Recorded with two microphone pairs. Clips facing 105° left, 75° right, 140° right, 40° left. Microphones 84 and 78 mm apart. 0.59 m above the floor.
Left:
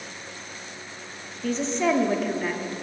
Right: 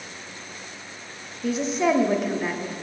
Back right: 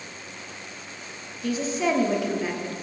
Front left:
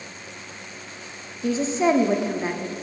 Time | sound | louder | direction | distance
1.4 | a woman speaking | right 2 dB, front left 4 dB | 5° left | 0.8 m